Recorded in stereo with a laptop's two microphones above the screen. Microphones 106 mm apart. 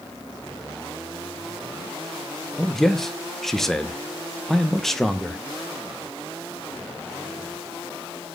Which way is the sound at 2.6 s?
5° left (ahead or behind).